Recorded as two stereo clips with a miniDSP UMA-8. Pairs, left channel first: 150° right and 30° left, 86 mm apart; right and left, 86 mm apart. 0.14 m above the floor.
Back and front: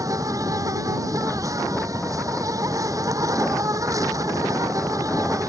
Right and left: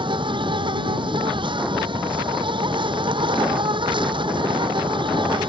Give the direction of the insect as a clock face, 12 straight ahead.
9 o'clock.